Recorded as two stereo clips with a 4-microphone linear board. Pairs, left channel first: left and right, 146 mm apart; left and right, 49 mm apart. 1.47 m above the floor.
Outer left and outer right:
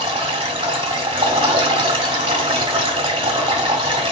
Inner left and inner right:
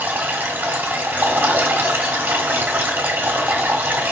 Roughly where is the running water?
Right.